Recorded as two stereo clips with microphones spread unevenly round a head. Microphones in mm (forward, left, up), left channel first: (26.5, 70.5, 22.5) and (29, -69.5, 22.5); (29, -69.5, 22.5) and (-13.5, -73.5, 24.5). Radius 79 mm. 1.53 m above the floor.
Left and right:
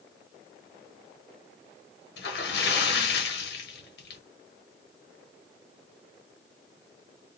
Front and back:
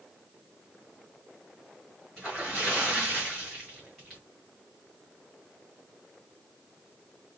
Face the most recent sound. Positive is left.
turn(degrees=95)